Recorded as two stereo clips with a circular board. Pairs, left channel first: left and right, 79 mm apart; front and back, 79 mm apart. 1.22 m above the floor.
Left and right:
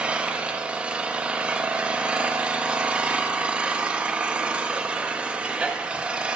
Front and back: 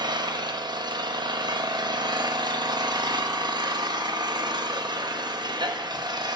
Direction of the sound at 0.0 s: 165° right.